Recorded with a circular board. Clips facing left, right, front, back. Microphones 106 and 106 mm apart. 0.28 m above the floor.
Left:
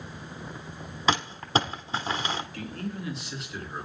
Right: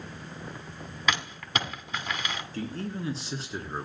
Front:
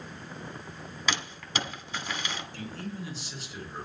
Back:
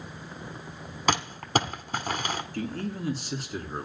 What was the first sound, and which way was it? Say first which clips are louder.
Crumpling: left 5 dB, back 8 dB; 145° left.